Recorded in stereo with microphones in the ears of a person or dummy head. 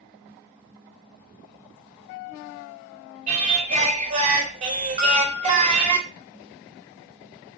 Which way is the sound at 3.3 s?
30° right (ahead or behind).